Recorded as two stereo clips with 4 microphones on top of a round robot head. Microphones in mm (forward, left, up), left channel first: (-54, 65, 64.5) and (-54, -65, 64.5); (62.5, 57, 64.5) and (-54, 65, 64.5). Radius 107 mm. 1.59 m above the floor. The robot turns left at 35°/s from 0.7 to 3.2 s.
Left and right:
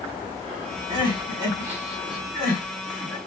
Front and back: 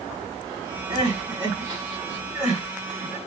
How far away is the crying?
About 2.0 m.